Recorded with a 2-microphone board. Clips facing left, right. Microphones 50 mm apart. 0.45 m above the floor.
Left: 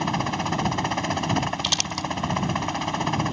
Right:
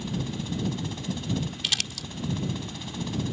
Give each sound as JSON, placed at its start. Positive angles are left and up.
{"t": 0.0, "sound": "a helicopter", "side_deg": 60}
{"t": 1.6, "sound": "crumpling", "side_deg": -5}